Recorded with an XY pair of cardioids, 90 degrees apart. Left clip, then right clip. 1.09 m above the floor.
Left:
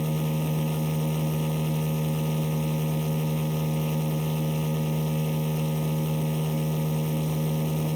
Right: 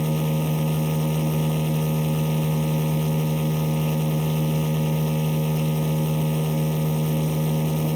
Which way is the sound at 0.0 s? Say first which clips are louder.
Right 4 dB; 30° right.